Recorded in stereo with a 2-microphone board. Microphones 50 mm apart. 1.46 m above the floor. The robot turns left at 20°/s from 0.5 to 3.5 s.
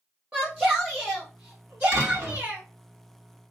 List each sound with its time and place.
0.3 s a shout: 20° right, 1.9 m; by 2.6 s 65° right, 1.9 m
1.9 s a door slam: 80° right, 2 m; by 2.4 s 75° right (ahead or behind), 2 m